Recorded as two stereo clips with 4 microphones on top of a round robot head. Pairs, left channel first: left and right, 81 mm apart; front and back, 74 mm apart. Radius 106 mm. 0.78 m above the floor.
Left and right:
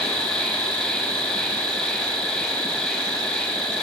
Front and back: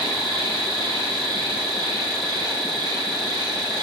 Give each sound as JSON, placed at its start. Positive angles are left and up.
{"t": 0.0, "sound": "an insect", "azimuth_deg": 170, "distance_m": 6.0}